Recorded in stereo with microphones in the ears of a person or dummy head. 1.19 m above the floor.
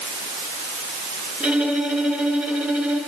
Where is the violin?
5° right (ahead or behind), 7.5 m.